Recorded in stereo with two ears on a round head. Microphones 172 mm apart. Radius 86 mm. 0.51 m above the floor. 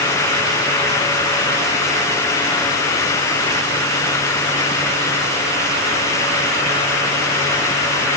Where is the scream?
I don't hear a scream.